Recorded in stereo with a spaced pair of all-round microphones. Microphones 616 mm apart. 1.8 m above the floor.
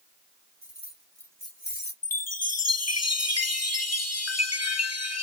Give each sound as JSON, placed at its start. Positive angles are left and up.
{"t": 0.6, "sound": "keys jangling", "side_deg": -20, "distance_m": 2.0}
{"t": 2.0, "sound": "a chime", "side_deg": 25, "distance_m": 0.6}